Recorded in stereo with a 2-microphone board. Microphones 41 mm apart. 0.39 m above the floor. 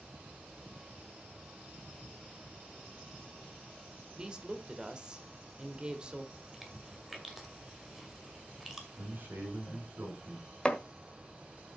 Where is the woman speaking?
20° right (ahead or behind), 1.4 m.